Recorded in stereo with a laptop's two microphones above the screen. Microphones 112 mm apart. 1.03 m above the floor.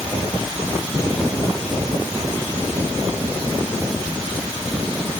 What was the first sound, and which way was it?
Only background noise.